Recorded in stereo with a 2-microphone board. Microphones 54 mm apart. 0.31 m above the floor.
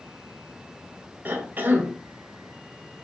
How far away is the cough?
About 1.0 m.